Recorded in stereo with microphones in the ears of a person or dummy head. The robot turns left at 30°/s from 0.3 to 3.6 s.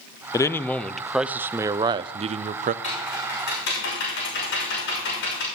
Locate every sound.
0.3 s a man speaking: 15° left, 0.5 m; by 2.7 s 55° right, 0.5 m
2.8 s typing on a keyboard: 35° left (ahead or behind), 6 m; by 5.5 s 55° left (ahead or behind), 6 m